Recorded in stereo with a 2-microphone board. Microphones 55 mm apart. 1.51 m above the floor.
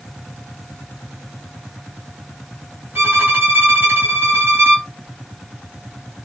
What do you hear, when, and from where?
3.0 s a violin: 40° right (ahead or behind), 1.5 m